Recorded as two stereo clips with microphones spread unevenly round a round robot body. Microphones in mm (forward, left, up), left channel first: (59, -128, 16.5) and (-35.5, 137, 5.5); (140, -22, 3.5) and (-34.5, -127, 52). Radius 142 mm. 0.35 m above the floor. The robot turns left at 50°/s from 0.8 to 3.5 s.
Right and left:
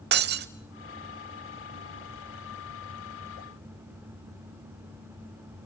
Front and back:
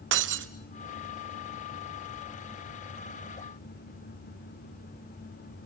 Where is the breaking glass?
165° left, 0.8 m.